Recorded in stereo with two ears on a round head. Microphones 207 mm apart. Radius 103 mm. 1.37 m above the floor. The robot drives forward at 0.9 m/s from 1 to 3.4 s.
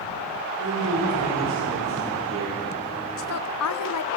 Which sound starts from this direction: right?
A man speaking, at 0.6 s.